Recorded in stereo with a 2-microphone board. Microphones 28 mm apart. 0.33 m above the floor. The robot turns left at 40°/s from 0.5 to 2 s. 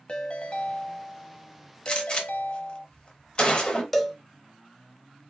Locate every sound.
0.1 s a ringtone: 145° left, 0.6 m; by 2.9 s 85° left, 0.6 m
1.9 s a gunshot: 30° left (ahead or behind), 0.8 m
3.9 s a cowbell: 5° left (ahead or behind), 0.5 m